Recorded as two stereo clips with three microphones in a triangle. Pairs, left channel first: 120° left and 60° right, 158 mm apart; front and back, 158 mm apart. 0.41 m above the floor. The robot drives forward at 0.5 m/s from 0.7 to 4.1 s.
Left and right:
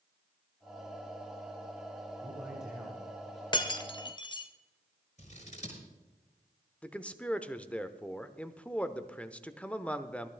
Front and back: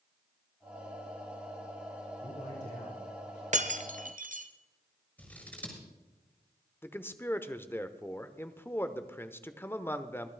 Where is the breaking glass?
170° left, 0.8 m; by 4.5 s 175° left, 1.1 m.